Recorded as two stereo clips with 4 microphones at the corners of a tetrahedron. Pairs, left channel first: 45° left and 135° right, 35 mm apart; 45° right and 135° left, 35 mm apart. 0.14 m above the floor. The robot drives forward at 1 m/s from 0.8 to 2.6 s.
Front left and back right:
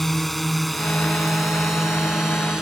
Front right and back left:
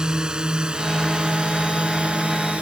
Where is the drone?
120° left; by 2.6 s 165° left.